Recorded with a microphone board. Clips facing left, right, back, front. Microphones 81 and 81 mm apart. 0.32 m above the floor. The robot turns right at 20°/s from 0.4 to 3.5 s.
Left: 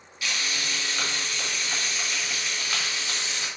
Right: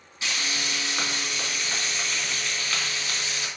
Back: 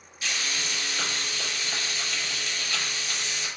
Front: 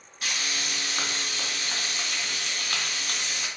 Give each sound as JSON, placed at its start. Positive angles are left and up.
{"t": 0.2, "sound": "frying", "azimuth_deg": -30, "distance_m": 3.0}